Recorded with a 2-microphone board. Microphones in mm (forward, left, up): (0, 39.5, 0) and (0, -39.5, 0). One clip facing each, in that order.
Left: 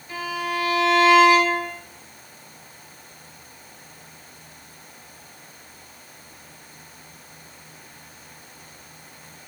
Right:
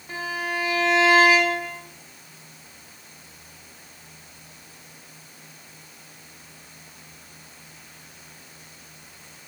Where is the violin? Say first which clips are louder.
Left 2 dB; 35° right (ahead or behind), 1.0 m.